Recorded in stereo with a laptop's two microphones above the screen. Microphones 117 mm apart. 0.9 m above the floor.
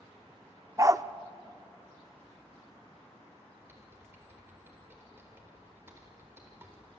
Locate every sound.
0.8 s a dog barking: 30° right (ahead or behind), 0.5 m
3.6 s typing on a keyboard: 20° right (ahead or behind), 4 m